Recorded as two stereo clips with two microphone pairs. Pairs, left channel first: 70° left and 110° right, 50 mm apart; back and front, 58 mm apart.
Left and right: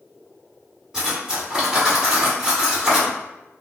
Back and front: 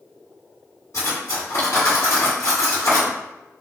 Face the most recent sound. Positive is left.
turn(degrees=170)